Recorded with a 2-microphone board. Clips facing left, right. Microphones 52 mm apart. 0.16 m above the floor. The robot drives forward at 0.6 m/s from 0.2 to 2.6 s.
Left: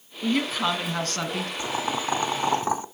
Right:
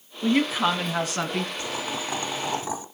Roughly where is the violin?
I don't hear a violin.